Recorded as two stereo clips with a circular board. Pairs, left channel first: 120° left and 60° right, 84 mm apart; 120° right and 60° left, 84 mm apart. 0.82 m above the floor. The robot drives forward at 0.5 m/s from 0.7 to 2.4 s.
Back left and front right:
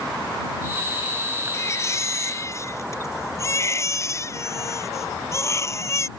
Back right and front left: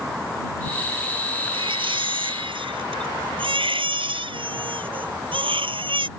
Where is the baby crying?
65° left.